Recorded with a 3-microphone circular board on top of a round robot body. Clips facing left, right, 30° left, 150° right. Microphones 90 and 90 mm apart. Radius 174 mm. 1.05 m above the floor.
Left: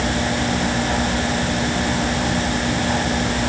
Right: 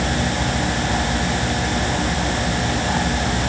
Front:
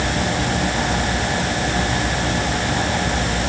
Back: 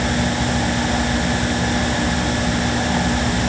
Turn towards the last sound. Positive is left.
No sound to turn to.